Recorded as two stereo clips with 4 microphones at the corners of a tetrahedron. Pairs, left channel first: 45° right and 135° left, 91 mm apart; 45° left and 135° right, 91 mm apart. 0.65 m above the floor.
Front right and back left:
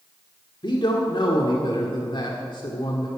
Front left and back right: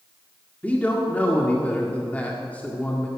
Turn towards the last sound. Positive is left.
turn(degrees=-30)